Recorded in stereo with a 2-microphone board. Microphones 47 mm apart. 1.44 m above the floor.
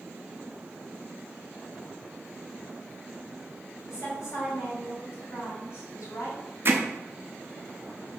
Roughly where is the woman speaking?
Left.